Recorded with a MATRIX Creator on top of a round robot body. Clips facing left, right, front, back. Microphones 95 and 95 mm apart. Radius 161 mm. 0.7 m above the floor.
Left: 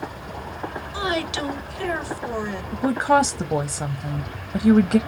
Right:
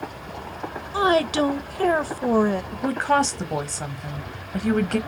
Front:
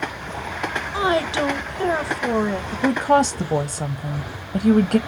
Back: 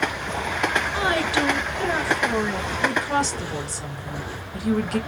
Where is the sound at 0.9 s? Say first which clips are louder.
Right 7 dB, front 6 dB; 55° right, 0.8 m.